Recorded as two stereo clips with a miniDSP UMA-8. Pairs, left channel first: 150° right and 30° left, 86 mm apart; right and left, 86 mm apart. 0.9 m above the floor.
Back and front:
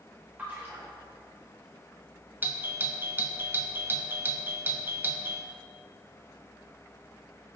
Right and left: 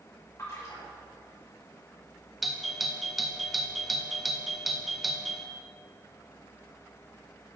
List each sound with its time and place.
0.4 s a splash: 40° right, 2.5 m
2.4 s a doorbell: straight ahead, 0.7 m